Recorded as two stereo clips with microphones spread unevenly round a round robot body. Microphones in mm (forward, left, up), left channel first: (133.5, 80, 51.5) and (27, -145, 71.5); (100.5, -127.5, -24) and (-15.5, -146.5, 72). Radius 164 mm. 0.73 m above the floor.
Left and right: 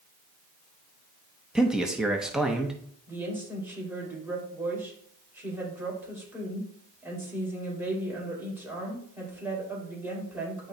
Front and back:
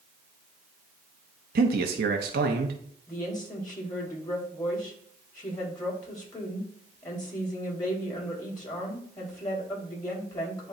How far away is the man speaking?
About 0.7 m.